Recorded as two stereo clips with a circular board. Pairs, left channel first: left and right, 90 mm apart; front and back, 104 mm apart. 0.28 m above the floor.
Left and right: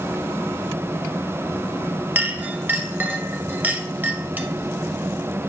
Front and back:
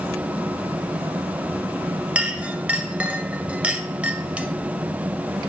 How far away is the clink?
About 0.5 m.